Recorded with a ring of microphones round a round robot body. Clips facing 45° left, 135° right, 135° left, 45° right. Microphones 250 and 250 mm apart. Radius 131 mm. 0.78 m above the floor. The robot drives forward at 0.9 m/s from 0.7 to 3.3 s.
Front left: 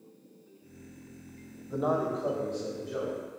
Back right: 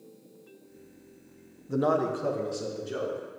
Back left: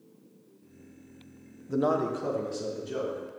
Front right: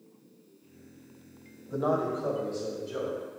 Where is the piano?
I don't hear a piano.